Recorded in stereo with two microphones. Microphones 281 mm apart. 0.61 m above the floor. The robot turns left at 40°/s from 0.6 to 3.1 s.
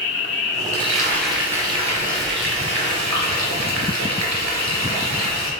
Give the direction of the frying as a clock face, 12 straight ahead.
11 o'clock.